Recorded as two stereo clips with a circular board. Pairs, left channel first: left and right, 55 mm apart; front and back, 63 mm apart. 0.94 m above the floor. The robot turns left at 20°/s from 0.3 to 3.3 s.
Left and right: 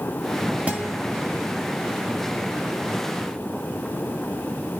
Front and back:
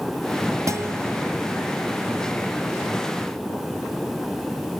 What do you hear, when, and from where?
0.7 s a guitar: 150° right, 1.7 m; by 1.0 s 155° right, 1.7 m